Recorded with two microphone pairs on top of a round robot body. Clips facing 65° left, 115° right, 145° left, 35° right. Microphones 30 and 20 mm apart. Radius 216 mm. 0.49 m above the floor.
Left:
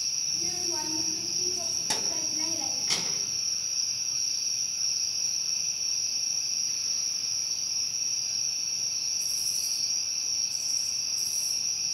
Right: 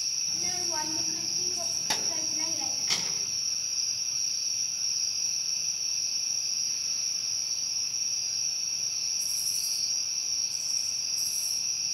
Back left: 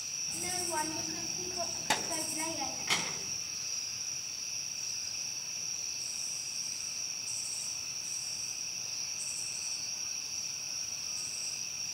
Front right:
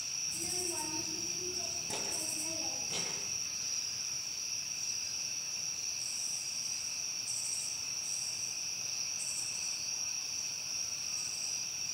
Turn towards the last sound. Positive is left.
turn(degrees=160)